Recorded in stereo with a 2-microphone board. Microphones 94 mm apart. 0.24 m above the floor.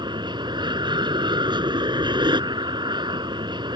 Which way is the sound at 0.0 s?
55° right (ahead or behind).